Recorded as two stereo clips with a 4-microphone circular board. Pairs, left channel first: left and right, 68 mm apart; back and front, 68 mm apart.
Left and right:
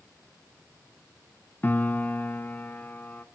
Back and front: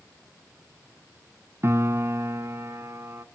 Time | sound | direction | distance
1.6 | a piano | 35° left | 1.2 m